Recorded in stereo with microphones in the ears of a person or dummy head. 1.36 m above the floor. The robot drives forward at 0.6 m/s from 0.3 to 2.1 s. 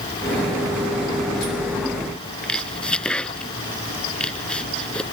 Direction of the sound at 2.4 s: 5° left (ahead or behind).